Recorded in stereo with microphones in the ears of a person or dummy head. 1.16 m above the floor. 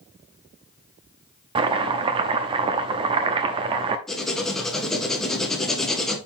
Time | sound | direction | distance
1.6 | chopping | 30° right (ahead or behind) | 0.7 m
4.1 | writing | centre (ahead or behind) | 1.0 m